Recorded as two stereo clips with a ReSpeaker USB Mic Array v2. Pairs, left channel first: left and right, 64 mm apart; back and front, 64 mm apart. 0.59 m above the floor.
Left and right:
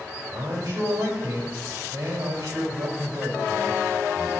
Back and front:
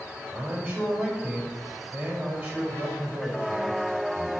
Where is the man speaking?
55° right, 3 m.